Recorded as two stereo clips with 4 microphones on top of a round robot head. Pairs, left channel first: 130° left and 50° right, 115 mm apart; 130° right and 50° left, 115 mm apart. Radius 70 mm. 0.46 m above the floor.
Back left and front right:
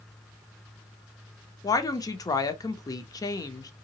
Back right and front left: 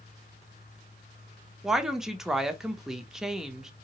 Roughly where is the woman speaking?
Behind left.